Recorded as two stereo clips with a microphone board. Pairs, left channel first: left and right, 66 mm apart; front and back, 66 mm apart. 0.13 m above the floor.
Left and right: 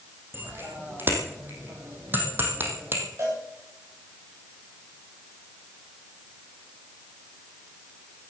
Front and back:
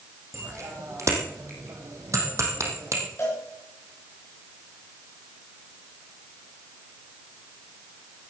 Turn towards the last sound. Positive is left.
turn(degrees=-50)